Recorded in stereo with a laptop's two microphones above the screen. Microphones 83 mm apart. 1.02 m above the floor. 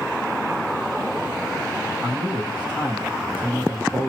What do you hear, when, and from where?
2.0 s a man speaking: 20° right (ahead or behind), 2.0 m